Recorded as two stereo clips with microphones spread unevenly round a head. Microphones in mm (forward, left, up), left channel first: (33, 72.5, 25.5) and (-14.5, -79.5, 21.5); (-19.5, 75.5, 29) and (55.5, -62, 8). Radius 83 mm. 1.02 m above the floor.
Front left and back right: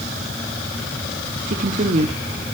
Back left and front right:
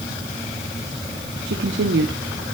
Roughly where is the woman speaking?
Right.